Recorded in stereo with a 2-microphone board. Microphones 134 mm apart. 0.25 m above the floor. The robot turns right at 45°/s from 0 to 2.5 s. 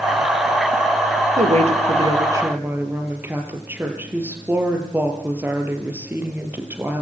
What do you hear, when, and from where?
1.4 s a woman speaking: 65° right, 5 m; by 7.0 s 15° right, 5 m